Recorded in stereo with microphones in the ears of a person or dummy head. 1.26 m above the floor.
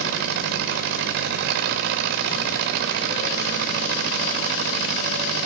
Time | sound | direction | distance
0.0 | an engine running | 50° right (ahead or behind) | 1.0 m